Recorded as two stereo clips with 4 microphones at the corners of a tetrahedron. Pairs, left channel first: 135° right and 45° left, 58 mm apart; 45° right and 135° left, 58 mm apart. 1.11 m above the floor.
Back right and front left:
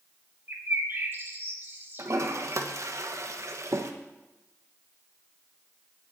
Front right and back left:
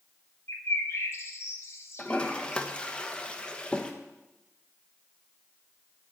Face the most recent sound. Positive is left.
turn(degrees=25)